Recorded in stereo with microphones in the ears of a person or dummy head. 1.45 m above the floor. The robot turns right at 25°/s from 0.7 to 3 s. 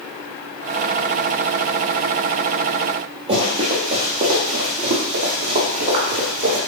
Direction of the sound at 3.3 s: 20° right (ahead or behind).